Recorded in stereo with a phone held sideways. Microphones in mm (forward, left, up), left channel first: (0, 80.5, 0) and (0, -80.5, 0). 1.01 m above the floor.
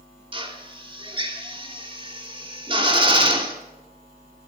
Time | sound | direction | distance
0.3 | a drill | 30° right (ahead or behind) | 2.5 m